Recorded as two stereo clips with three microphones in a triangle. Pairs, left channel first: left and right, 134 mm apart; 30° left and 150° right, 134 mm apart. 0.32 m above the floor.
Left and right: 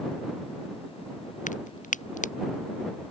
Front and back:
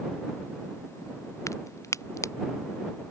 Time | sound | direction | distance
1.5 | a crack | 95° left | ?